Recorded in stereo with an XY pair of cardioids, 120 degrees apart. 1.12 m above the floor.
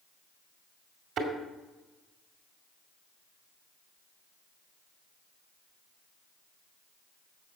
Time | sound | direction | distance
1.2 | a thud | 65° right | 2.5 m